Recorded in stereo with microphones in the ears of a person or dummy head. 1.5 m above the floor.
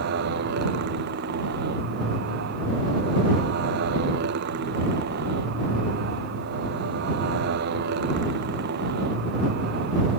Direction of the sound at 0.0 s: 60° right (ahead or behind).